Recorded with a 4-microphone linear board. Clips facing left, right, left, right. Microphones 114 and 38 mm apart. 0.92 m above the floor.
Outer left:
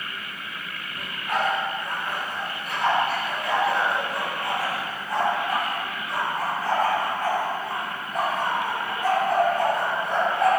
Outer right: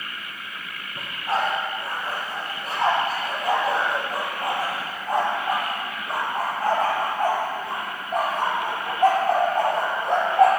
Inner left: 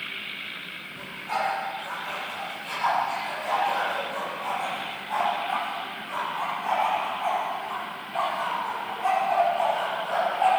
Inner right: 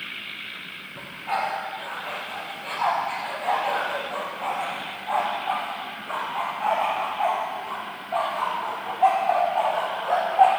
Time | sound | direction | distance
1.0 | a dog barking | 30° right (ahead or behind) | 9.5 m